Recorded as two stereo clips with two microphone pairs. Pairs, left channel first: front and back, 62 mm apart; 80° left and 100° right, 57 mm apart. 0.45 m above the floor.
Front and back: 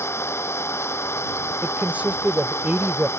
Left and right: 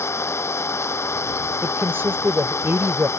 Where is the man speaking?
120° right.